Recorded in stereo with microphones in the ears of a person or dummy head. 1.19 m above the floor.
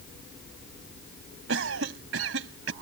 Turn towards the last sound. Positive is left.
turn(degrees=-90)